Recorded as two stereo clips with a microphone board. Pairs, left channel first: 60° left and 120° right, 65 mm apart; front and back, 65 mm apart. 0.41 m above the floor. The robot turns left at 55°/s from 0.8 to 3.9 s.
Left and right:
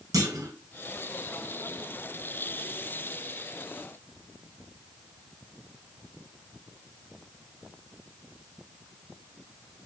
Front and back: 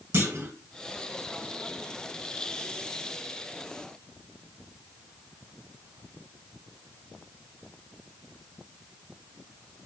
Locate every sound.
0.1 s a clunk: 130° right, 0.6 m